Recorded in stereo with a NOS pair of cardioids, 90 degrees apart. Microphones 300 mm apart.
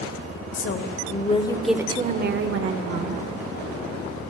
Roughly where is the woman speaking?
Ahead left.